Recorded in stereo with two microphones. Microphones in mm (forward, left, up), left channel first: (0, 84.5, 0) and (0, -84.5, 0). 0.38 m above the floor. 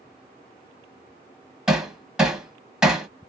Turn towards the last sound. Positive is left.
turn(degrees=-5)  # may be behind; listen again after turning